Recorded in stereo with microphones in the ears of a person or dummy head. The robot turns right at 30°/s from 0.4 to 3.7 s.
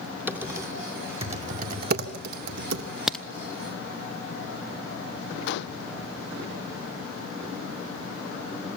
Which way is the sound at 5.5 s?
65° left (ahead or behind).